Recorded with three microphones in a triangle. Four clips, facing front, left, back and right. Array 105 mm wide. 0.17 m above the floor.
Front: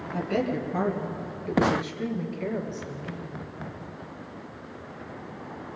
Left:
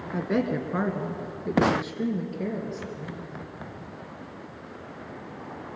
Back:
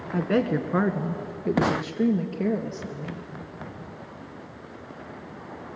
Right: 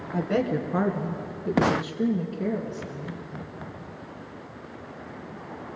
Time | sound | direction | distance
0.1 | a woman speaking | 170° left | 2 m